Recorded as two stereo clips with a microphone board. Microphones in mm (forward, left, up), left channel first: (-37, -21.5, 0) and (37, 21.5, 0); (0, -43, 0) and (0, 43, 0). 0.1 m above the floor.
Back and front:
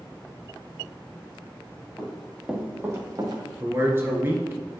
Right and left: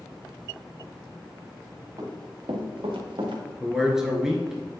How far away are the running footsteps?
About 2 m.